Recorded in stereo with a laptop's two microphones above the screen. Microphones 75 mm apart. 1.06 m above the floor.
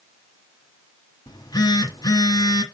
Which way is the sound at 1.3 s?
55° left (ahead or behind).